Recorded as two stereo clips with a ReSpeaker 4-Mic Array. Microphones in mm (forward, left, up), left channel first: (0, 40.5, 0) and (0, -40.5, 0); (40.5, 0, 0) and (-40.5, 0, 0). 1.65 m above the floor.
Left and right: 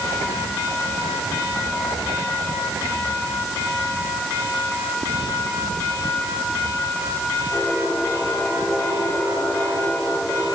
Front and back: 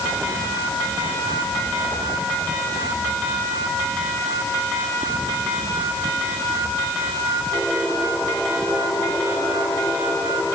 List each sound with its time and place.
Only background noise.